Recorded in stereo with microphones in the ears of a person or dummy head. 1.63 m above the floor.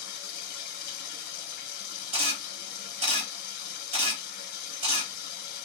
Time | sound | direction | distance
0.0 | running water | 55° left (ahead or behind) | 0.9 m
2.1 | a camera shutter | 35° right (ahead or behind) | 1.4 m